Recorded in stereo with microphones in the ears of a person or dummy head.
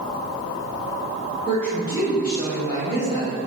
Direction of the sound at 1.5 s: 5° left (ahead or behind).